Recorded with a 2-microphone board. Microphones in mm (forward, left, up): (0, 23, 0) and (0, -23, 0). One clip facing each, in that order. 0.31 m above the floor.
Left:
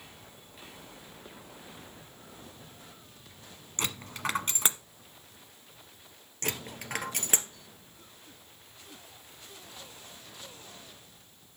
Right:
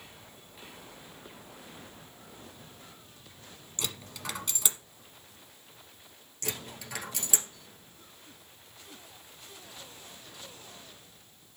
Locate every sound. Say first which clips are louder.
3.8 s a dropped coin: left 5 dB; 45° left (ahead or behind), 1.0 m
6.4 s a dropped coin: left 3 dB; 55° left (ahead or behind), 1.7 m